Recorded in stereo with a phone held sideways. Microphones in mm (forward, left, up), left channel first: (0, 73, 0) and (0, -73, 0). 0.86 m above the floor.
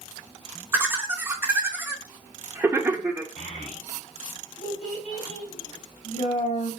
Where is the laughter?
20° right (ahead or behind), 0.7 m.